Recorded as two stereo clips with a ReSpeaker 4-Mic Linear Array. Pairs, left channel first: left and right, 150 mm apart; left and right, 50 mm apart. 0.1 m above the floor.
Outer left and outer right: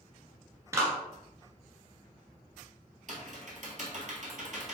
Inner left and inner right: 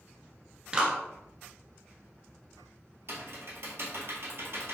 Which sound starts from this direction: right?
Typing on a keyboard, at 3.1 s.